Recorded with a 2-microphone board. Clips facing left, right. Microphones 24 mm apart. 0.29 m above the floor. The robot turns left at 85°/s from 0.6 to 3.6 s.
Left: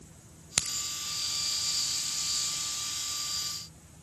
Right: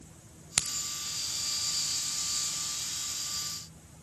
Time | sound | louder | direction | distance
0.6 | a crack | even | 25° left (ahead or behind) | 0.8 m